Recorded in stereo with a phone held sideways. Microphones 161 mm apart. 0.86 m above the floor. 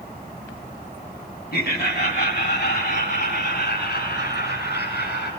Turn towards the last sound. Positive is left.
turn(degrees=80)